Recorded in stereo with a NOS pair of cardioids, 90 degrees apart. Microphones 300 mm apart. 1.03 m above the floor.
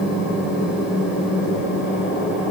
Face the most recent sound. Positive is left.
turn(degrees=35)